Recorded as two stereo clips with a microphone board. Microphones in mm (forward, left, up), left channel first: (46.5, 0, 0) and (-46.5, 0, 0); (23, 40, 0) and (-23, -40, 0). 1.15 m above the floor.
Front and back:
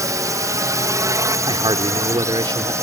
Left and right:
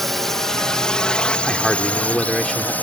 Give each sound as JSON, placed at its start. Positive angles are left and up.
{"t": 0.0, "sound": "a drone", "azimuth_deg": 145}
{"t": 1.5, "sound": "a man speaking", "azimuth_deg": 145}